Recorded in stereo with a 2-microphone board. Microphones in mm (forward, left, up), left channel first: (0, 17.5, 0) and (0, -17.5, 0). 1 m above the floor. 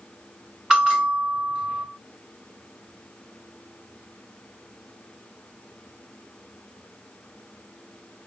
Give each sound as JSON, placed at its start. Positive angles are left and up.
{"t": 0.7, "sound": "a bell", "side_deg": -20, "distance_m": 1.9}